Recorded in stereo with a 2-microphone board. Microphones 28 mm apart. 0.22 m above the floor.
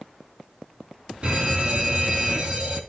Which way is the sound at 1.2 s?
40° right (ahead or behind).